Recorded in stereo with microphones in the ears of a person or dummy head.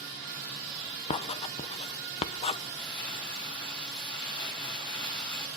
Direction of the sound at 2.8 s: 25° left (ahead or behind).